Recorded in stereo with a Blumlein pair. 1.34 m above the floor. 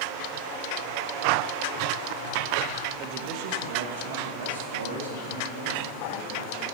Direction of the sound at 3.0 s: 35° right.